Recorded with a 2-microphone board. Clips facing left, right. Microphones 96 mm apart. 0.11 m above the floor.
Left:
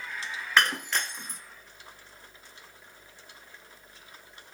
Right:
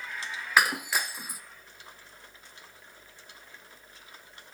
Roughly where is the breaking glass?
Centre.